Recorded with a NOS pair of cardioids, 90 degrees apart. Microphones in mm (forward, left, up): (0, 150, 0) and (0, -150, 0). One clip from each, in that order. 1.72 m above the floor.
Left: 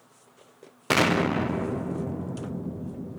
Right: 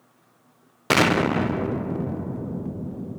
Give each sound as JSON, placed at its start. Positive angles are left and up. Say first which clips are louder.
{"t": 0.9, "sound": "an explosion", "louder": "right 3 dB", "azimuth_deg": -15, "distance_m": 0.6}